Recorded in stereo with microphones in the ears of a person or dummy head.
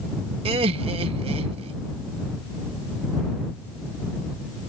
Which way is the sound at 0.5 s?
35° right (ahead or behind).